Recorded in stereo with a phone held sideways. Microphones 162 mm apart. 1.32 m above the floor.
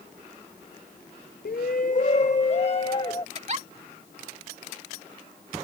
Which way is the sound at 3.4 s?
45° right (ahead or behind).